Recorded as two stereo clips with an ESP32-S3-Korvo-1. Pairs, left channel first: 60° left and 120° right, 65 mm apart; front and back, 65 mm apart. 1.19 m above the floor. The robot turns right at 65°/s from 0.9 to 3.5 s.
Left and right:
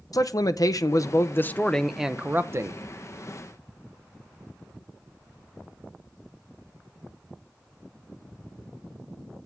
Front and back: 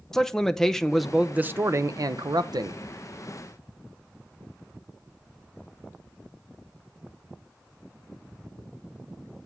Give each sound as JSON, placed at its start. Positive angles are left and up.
{"t": 0.1, "sound": "a man speaking", "azimuth_deg": 80, "distance_m": 0.5}